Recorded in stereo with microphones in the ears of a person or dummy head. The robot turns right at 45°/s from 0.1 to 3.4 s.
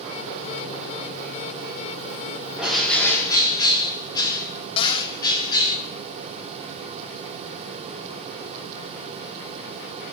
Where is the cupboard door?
30° left (ahead or behind), 0.6 m.